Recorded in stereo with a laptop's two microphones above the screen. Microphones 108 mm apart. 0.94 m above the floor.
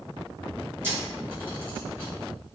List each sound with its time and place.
0.8 s a camera shutter: 20° right (ahead or behind), 0.9 m